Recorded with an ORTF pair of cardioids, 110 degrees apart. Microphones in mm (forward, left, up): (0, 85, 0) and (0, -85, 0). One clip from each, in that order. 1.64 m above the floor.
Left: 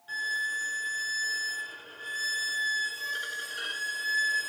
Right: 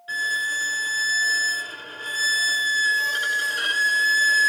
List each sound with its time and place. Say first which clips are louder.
0.1 s a violin: right 6 dB; 45° right, 0.6 m